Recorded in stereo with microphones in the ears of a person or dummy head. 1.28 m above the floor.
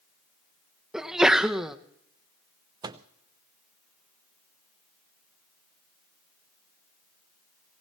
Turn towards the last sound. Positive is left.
turn(degrees=-25)  # may be behind; listen again after turning